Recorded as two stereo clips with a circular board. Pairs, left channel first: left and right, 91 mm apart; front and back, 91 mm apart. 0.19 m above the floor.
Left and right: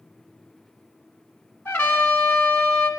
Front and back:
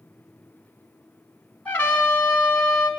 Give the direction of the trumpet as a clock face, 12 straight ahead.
10 o'clock.